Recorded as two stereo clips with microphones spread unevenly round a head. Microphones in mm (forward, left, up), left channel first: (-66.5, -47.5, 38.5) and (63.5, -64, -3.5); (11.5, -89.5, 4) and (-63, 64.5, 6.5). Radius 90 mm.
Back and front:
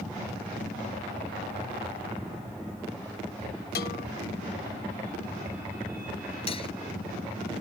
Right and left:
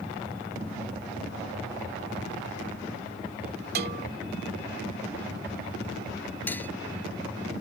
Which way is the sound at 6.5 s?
145° right.